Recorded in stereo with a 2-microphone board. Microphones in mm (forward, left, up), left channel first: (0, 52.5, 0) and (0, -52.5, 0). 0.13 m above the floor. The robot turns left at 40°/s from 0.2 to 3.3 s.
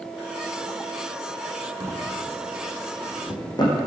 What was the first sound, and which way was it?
A drawer, 20° right (ahead or behind).